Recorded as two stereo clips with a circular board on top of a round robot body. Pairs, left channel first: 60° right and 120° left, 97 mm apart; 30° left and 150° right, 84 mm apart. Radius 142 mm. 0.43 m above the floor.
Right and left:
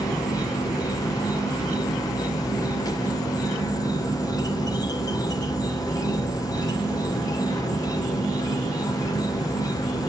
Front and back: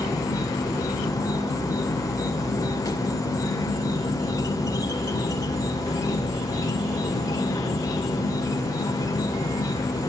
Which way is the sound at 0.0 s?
15° right.